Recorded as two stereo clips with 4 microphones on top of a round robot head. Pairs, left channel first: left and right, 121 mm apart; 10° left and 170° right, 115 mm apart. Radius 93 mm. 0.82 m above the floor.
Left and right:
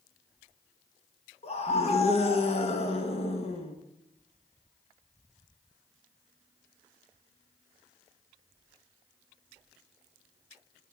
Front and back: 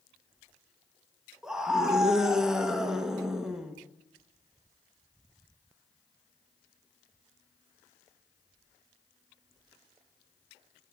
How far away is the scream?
About 1.1 m.